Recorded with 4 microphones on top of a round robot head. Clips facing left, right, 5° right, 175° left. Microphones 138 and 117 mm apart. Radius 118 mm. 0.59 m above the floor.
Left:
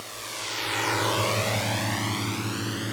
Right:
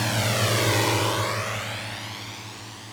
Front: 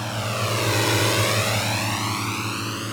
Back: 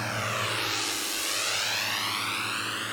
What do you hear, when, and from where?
0.0 s a drone: 85° right; by 3.0 s 55° left